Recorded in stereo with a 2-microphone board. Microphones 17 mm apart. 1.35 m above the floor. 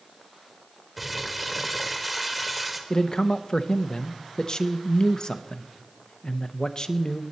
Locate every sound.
1.0 s crumpling: 5° right (ahead or behind), 1.3 m
2.9 s a man speaking: 45° left (ahead or behind), 0.8 m